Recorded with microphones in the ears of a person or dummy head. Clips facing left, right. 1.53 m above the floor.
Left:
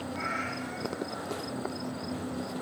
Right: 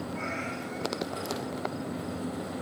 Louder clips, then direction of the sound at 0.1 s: Right 1 dB; 5° left (ahead or behind).